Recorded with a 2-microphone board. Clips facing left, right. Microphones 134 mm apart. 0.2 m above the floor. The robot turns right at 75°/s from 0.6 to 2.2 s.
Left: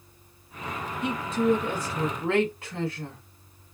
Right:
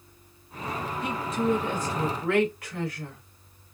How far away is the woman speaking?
About 1.3 m.